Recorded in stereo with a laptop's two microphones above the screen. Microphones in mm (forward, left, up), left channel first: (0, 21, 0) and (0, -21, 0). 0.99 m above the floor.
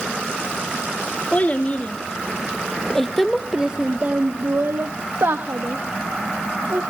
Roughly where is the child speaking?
Left.